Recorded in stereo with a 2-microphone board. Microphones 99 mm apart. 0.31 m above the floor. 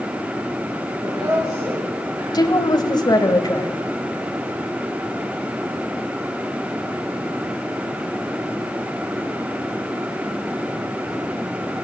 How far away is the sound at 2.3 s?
About 1.7 m.